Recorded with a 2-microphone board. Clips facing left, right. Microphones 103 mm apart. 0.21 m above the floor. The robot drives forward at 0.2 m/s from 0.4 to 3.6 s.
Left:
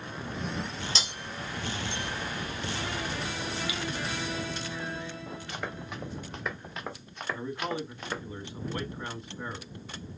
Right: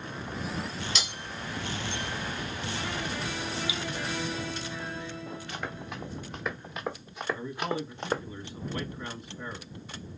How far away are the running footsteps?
About 2.5 m.